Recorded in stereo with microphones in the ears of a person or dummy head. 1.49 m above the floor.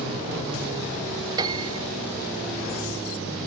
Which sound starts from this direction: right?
A piano, at 1.4 s.